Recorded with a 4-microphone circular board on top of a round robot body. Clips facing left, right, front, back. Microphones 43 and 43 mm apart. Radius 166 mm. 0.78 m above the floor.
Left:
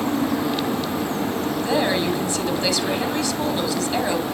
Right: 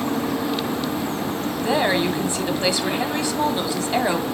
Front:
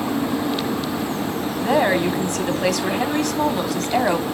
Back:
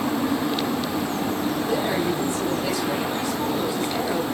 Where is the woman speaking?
25° right, 2 m.